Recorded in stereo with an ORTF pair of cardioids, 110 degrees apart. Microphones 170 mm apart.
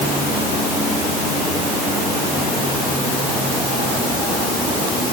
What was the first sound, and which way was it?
Only background noise.